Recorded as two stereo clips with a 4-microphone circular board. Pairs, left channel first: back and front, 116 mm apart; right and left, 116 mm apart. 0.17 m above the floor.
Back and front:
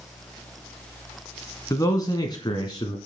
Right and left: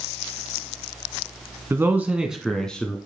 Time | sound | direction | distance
1.7 | a man speaking | 140° left | 1.6 m